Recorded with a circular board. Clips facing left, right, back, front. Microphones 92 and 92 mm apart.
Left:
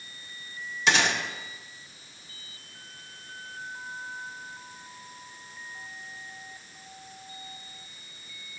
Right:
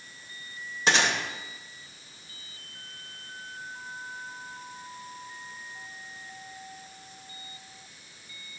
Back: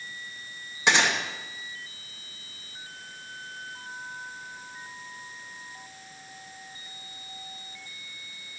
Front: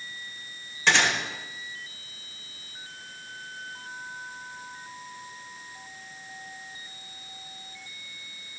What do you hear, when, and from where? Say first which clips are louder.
0.9 s a gunshot: even, even; 115° right, 1.5 m